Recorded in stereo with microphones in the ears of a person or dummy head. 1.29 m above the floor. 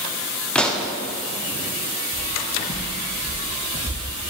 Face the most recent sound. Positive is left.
turn(degrees=-40)  # may be behind; listen again after turning